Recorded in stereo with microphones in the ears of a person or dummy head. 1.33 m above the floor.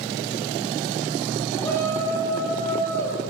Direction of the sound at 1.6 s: 15° left (ahead or behind).